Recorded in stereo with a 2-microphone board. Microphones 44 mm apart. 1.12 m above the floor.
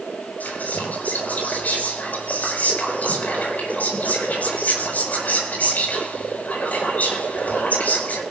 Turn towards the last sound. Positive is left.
turn(degrees=35)  # may be behind; listen again after turning